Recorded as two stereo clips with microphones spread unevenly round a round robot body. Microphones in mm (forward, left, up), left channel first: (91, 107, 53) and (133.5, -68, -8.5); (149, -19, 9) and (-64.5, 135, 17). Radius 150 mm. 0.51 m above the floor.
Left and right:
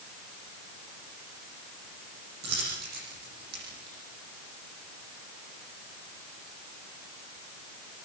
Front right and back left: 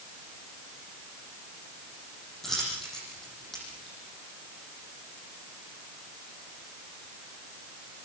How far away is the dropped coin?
About 9.5 m.